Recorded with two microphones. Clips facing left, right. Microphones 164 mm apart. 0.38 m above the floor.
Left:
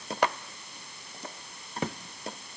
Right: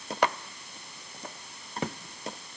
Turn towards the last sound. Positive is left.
No sound to turn to.